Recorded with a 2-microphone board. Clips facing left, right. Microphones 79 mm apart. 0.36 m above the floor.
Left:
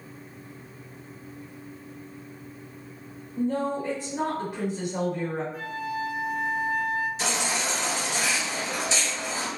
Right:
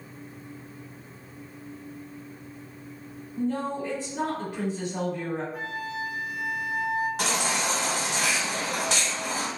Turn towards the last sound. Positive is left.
turn(degrees=-65)  # may be behind; listen again after turning